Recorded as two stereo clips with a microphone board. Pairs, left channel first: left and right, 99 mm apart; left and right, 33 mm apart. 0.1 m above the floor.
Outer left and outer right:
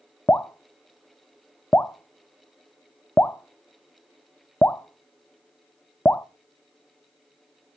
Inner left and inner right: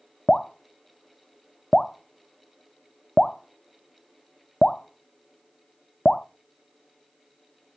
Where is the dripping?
20° left (ahead or behind), 0.7 m.